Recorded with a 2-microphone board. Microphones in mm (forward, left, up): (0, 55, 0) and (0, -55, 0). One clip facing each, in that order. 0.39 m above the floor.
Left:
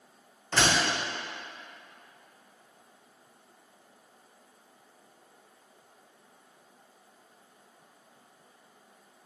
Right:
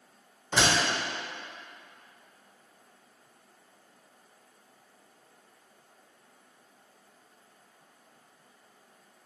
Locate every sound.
0.5 s a door slam: 10° right (ahead or behind), 0.8 m